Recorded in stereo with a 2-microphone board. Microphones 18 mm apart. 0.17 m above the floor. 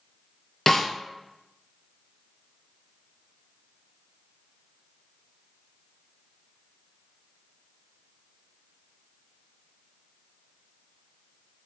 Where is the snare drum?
15° left (ahead or behind), 0.6 m.